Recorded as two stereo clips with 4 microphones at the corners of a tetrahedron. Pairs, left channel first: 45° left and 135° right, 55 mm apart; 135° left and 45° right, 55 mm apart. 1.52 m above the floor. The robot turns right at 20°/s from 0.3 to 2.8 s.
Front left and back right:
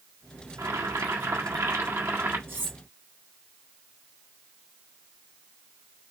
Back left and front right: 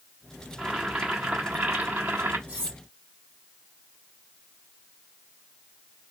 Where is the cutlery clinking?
105° right, 1.5 m; by 2.8 s 100° right, 1.5 m.